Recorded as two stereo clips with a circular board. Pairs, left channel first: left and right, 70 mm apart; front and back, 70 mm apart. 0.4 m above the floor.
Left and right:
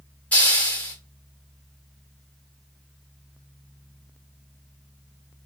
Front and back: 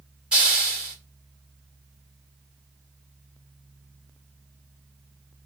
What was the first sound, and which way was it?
A hiss, 125° left.